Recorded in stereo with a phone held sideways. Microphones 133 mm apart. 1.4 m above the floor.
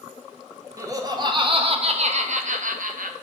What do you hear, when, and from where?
0.8 s laughter: 25° right (ahead or behind), 1.4 m; by 3.1 s 75° right (ahead or behind), 1.6 m